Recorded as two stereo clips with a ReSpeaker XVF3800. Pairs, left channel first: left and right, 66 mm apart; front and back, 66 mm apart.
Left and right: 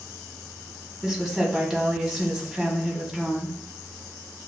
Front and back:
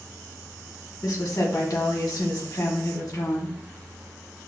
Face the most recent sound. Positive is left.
turn(degrees=-5)